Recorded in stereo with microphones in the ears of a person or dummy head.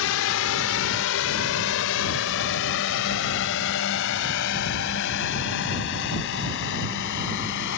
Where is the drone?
55° left (ahead or behind); by 7.8 s 50° left (ahead or behind).